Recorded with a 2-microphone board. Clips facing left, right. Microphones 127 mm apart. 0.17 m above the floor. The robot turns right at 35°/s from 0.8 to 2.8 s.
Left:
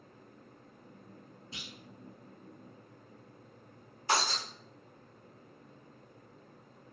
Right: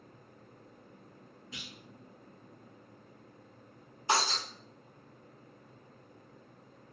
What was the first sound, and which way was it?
A clunk, 35° left (ahead or behind).